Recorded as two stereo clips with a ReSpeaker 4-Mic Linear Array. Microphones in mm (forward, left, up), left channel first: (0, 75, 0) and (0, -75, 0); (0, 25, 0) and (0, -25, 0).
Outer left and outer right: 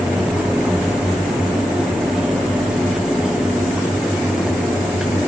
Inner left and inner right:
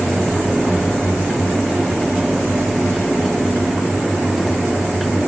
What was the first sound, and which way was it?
Only background noise.